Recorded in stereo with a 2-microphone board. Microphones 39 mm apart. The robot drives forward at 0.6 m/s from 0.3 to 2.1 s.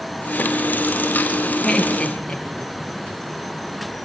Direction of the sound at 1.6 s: 20° left (ahead or behind).